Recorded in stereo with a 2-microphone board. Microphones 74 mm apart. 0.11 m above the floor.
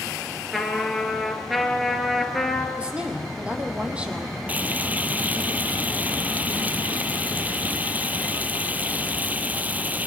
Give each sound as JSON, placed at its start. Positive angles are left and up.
{"t": 0.5, "sound": "a trumpet", "side_deg": 0, "distance_m": 2.5}
{"t": 2.8, "sound": "a woman speaking", "side_deg": -15, "distance_m": 3.0}
{"t": 4.5, "sound": "frying", "side_deg": -25, "distance_m": 0.7}